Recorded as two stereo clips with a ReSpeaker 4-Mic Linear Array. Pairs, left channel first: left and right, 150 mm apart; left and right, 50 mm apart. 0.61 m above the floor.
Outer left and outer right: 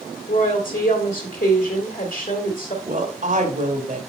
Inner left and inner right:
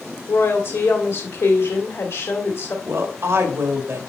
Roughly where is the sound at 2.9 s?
Right.